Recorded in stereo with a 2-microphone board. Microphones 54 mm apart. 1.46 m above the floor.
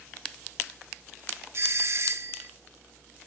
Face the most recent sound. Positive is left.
turn(degrees=-55)  # may be behind; listen again after turning